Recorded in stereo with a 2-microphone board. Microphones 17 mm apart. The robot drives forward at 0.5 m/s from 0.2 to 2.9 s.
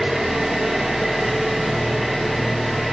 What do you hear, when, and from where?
0.0 s an engine running: 35° right (ahead or behind), 1.2 m; by 2.9 s 15° right (ahead or behind), 2.5 m